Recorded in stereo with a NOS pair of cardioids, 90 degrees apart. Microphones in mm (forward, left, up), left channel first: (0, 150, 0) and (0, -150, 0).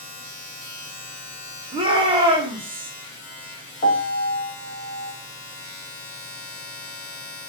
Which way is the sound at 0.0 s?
40° left.